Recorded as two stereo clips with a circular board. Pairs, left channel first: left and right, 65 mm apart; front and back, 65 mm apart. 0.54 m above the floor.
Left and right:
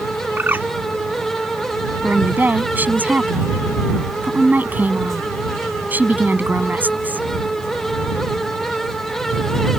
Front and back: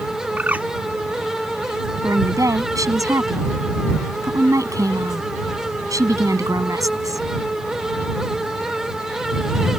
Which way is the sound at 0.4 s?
130° right.